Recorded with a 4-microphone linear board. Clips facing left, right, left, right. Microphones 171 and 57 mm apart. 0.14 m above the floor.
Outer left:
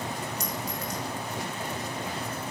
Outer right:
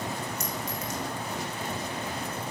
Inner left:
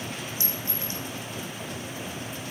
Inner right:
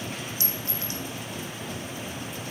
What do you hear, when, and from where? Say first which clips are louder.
0.4 s a clink: even, even; 35° left (ahead or behind), 7 m